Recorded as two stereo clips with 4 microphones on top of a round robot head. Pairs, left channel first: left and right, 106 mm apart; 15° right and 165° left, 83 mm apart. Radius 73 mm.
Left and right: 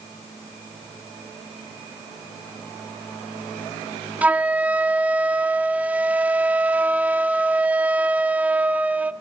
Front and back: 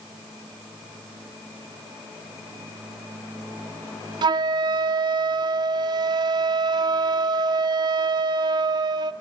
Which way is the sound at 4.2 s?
165° right.